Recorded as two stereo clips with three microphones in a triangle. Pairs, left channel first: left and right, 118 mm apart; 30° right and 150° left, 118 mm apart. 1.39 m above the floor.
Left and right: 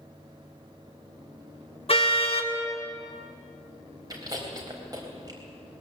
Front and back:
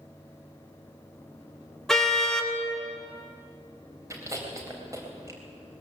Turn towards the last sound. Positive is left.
turn(degrees=-145)